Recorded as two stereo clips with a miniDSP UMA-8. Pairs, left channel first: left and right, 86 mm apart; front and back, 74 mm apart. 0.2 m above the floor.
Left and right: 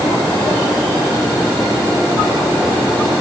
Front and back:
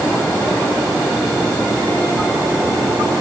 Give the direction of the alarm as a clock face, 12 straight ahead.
No alarm in this recording.